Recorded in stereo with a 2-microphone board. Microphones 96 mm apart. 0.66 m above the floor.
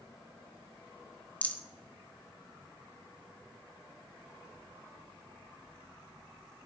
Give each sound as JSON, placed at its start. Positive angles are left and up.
{"t": 1.4, "sound": "a rattle", "side_deg": 20, "distance_m": 1.2}